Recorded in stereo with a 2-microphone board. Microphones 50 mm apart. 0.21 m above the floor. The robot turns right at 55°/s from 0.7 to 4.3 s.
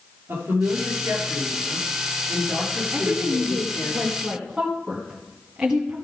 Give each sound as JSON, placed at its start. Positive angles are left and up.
{"t": 0.3, "sound": "a woman speaking", "azimuth_deg": -125, "distance_m": 4.5}
{"t": 2.9, "sound": "a woman speaking", "side_deg": -50, "distance_m": 1.5}